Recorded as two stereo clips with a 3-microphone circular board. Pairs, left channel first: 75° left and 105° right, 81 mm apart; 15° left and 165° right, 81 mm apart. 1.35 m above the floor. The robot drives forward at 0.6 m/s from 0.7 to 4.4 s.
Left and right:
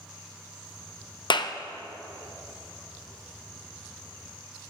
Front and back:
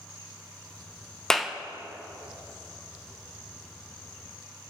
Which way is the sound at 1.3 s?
100° left.